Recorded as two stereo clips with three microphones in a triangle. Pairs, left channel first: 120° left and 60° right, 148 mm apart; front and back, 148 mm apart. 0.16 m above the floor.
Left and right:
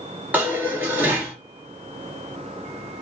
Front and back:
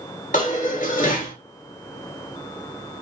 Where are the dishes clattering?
15° left, 1.8 m.